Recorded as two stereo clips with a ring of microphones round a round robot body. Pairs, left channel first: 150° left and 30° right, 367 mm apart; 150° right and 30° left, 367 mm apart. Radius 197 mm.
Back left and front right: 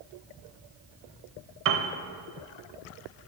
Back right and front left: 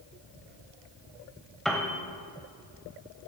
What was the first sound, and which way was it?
A piano, 60° right.